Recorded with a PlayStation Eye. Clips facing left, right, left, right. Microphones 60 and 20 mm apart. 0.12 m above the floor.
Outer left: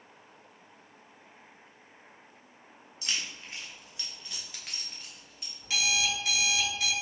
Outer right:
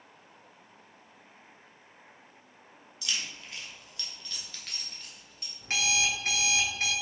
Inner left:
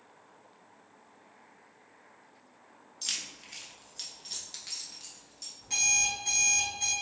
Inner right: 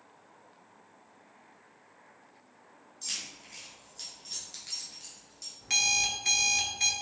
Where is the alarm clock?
45° right (ahead or behind), 0.8 m.